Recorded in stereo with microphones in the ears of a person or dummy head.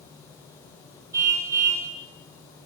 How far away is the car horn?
About 3 m.